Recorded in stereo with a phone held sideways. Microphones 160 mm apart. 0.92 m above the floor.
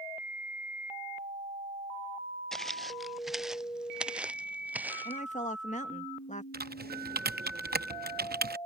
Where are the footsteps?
5° left (ahead or behind); by 5.2 s 10° right (ahead or behind).